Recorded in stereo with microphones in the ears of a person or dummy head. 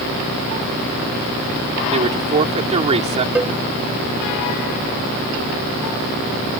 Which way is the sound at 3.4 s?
5° right (ahead or behind).